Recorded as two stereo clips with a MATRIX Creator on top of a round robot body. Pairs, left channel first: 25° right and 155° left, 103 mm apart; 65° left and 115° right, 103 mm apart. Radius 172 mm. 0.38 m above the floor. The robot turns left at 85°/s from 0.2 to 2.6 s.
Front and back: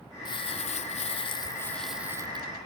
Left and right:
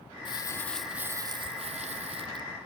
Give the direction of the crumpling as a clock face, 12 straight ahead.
11 o'clock.